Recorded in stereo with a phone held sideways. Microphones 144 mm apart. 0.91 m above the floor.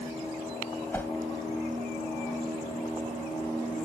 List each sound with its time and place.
0.9 s a whoosh: 15° left (ahead or behind)